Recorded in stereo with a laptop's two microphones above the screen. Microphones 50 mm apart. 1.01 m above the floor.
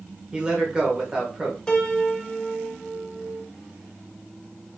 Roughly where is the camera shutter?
I don't hear a camera shutter.